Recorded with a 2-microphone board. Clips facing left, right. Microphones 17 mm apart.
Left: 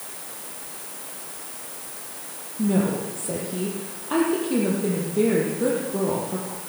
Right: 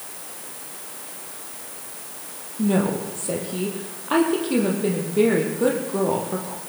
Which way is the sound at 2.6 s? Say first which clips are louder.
Right 1 dB; 35° right (ahead or behind).